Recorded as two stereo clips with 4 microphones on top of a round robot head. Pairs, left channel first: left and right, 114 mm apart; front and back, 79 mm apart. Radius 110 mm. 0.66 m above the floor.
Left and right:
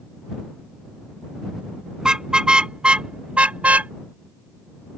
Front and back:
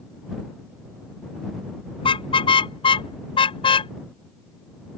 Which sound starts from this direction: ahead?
A car horn, at 2.0 s.